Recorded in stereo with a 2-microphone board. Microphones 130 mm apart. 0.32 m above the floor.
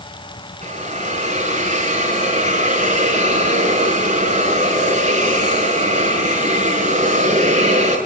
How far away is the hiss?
About 5.5 m.